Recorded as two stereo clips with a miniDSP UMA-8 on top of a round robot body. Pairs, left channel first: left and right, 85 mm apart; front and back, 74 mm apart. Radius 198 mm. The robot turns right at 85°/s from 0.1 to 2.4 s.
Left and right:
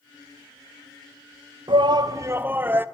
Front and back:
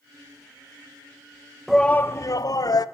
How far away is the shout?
About 1.1 m.